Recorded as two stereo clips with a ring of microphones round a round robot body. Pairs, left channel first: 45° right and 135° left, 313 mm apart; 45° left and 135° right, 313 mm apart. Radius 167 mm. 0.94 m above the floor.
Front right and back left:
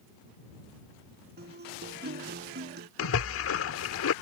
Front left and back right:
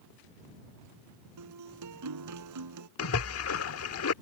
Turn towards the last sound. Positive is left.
turn(degrees=0)